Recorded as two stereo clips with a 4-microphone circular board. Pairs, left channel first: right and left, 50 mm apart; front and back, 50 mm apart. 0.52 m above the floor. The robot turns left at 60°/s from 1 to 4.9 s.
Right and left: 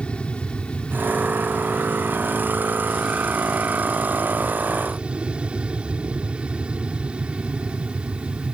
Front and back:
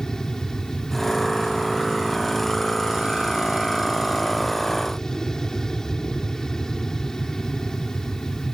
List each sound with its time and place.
0.0 s an aircraft: 65° right; by 8.5 s 65° left